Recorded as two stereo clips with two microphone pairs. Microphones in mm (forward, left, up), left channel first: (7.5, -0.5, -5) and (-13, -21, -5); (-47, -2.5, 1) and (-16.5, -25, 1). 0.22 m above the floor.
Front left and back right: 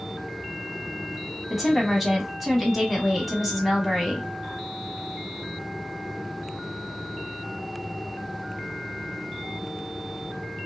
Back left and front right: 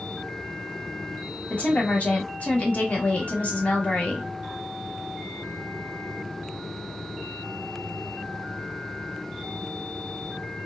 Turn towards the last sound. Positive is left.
turn(degrees=145)